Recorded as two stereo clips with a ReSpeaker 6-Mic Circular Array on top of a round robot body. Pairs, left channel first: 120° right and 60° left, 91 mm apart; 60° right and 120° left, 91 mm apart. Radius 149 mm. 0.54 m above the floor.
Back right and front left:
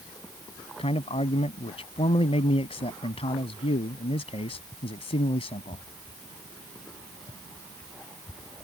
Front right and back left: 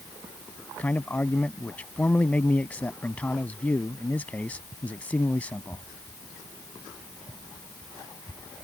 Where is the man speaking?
135° right.